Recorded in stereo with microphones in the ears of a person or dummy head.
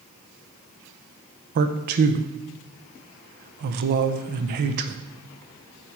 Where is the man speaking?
40° right (ahead or behind), 0.7 m.